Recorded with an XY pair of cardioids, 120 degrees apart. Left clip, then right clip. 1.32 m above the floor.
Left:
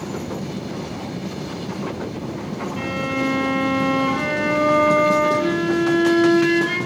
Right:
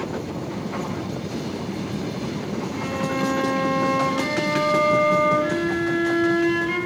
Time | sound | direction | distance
2.8 | a violin | 65° left | 3 m